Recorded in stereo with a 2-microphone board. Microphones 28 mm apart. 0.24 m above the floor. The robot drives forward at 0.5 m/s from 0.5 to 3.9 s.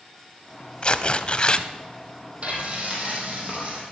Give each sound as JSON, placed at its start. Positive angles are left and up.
{"t": 0.8, "sound": "tearing paper", "side_deg": 35, "distance_m": 0.5}
{"t": 2.4, "sound": "frying", "side_deg": -45, "distance_m": 3.0}